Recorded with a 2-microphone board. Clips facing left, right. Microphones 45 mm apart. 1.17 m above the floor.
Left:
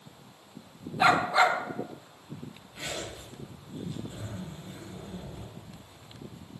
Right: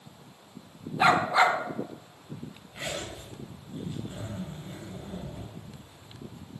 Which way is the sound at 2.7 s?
25° right (ahead or behind).